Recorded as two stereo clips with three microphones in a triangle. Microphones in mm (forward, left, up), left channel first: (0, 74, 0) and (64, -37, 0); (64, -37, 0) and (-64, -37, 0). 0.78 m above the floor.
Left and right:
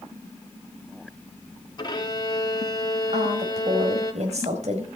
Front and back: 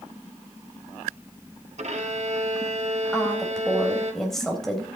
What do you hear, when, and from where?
1.8 s a violin: 170° left, 2.0 m
3.1 s a woman speaking: 90° right, 4 m